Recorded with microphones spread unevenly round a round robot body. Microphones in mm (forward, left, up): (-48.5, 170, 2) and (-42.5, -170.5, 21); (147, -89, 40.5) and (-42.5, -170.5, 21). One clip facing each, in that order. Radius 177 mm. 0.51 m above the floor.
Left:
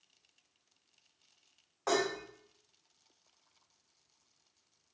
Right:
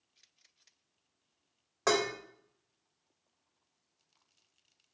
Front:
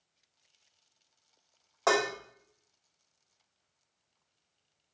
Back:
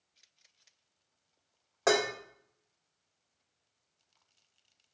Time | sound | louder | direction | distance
1.9 | dishes clattering | right 2 dB, back 1 dB | 85° right | 1.3 m